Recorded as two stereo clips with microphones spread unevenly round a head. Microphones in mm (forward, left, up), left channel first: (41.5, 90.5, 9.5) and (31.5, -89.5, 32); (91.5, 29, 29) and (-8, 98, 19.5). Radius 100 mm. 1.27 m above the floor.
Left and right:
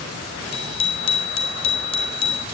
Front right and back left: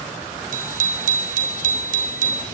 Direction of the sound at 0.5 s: 150° left.